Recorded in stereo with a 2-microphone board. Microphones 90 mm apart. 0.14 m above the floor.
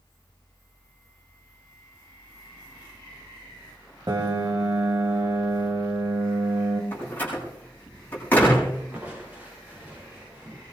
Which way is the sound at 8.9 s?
15° right (ahead or behind).